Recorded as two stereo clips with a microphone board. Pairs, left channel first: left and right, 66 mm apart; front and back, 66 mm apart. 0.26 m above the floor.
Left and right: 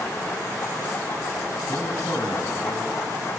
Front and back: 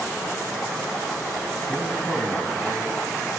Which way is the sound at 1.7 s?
95° left.